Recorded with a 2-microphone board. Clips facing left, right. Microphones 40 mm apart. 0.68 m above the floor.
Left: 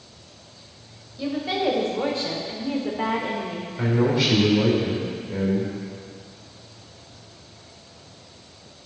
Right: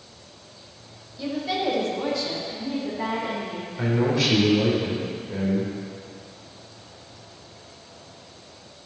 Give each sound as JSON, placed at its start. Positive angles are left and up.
{"t": 1.2, "sound": "a woman speaking", "side_deg": 10, "distance_m": 3.0}
{"t": 3.8, "sound": "a man speaking", "side_deg": 5, "distance_m": 3.0}